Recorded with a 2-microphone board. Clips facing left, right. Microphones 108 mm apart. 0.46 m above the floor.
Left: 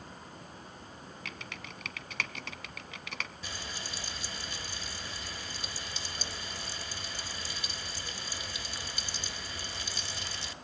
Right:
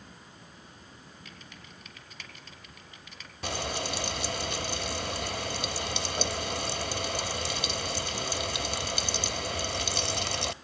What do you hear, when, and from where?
1.2 s typing on a keyboard: 90° left, 1.2 m
3.4 s frying: 70° right (ahead or behind), 0.7 m